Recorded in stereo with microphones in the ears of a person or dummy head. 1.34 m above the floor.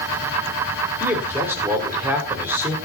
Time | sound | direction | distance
1.0 | a man speaking | 15° right (ahead or behind) | 5.5 m